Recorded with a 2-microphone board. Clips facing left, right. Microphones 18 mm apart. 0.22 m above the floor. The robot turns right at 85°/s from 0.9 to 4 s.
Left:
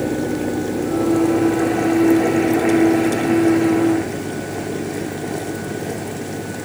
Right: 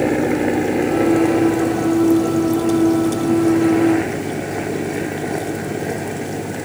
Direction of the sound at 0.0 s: 60° right.